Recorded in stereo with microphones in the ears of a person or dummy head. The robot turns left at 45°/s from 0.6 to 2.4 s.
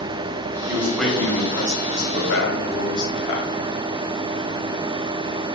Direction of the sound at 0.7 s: 170° right.